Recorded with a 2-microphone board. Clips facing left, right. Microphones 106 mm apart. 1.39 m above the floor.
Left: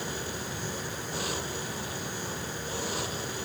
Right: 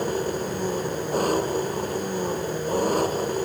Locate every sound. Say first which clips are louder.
0.0 s an engine running: right 11 dB; 50° right (ahead or behind)